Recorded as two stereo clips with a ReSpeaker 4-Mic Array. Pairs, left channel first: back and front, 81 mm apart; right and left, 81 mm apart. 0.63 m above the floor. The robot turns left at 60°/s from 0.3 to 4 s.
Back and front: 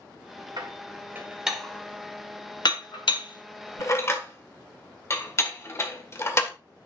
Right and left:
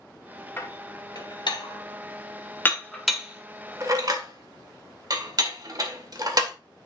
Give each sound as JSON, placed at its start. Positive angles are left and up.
{"t": 0.6, "sound": "dishes clattering", "azimuth_deg": -30, "distance_m": 1.6}